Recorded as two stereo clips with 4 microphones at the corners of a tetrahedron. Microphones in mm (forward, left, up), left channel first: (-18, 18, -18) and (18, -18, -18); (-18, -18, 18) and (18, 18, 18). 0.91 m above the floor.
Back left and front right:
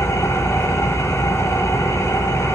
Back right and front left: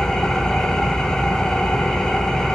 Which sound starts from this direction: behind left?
An engine running, at 0.0 s.